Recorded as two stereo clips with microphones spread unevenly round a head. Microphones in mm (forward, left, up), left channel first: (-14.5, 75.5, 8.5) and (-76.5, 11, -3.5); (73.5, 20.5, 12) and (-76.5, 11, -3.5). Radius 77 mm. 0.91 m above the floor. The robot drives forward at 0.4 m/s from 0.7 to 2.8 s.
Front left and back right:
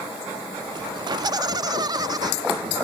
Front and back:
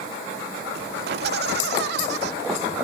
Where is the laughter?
170° right; by 2.3 s 175° right.